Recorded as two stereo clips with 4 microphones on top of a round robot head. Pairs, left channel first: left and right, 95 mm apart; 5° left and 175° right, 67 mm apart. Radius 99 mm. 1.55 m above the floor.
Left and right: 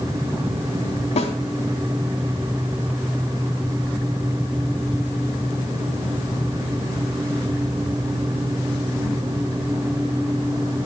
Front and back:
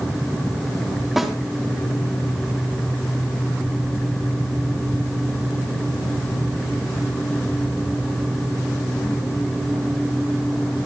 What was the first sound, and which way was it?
A snare drum, 95° left.